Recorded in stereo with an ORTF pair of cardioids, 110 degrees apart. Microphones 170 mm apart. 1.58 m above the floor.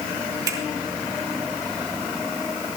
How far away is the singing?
No singing in this recording.